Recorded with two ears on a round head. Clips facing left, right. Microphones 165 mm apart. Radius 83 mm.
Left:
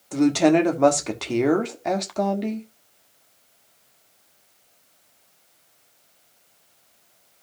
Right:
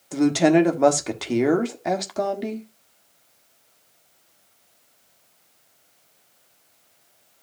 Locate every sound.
0.1 s a woman speaking: 5° right (ahead or behind), 1.3 m